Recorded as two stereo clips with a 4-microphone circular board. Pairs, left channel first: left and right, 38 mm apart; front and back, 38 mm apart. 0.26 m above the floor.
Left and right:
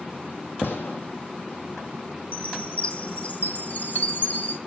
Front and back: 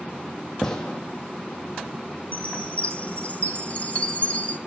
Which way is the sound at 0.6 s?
75° left.